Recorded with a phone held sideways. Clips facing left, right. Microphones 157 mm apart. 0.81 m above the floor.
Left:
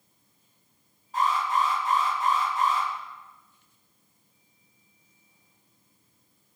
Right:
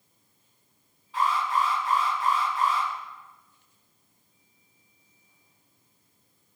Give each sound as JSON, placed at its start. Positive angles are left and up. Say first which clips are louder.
{"t": 1.1, "sound": "an alarm", "louder": "even", "side_deg": 45, "distance_m": 6.5}